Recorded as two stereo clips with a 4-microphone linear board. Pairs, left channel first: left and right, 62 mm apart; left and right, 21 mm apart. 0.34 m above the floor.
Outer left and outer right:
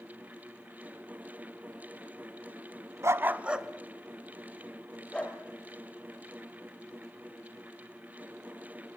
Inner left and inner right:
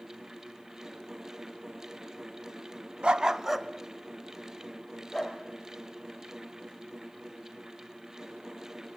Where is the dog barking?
50° right (ahead or behind), 0.9 m; by 5.4 s 15° left (ahead or behind), 4 m.